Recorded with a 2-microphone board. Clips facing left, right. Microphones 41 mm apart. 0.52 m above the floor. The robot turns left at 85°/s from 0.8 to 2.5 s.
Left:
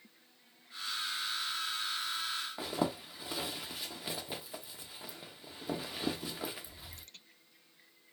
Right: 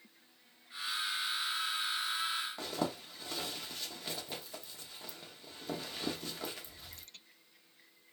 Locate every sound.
2.6 s a zipper: 15° left (ahead or behind), 0.6 m